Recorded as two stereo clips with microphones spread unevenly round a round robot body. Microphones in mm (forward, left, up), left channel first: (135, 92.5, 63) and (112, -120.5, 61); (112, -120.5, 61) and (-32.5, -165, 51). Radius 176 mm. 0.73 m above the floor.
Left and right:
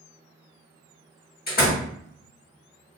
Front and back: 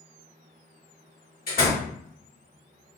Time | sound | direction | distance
1.5 | a door slam | 40° left | 1.3 m